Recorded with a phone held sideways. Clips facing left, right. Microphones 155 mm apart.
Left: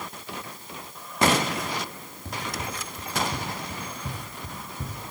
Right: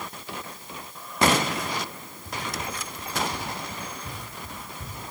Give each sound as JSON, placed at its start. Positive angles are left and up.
{"t": 2.2, "sound": "running footsteps", "side_deg": 70, "distance_m": 8.5}